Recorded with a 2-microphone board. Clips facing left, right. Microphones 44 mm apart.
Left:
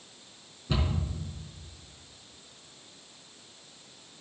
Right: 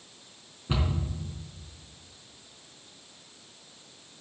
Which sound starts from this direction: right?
A cupboard door, at 0.7 s.